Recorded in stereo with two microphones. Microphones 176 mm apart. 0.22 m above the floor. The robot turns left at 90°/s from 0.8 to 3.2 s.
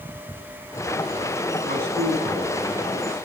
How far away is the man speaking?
About 4 m.